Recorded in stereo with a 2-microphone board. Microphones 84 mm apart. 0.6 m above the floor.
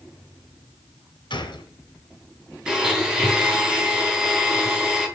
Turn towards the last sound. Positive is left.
turn(degrees=-10)  # may be behind; listen again after turning